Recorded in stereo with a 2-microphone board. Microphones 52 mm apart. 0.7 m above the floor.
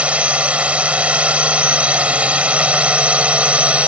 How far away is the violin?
No violin in this recording.